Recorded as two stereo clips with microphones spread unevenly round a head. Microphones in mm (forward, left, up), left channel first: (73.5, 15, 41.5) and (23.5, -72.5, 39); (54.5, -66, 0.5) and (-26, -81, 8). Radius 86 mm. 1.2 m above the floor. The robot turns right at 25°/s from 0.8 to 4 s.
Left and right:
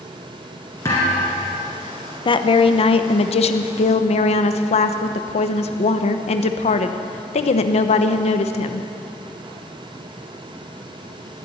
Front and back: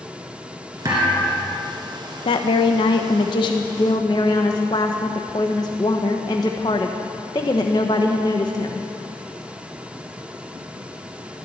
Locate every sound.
0.8 s a thud: 135° left, 2 m; by 1.6 s 150° left, 2 m
2.2 s a woman speaking: 20° left, 1.0 m; by 8.9 s 65° left, 1.0 m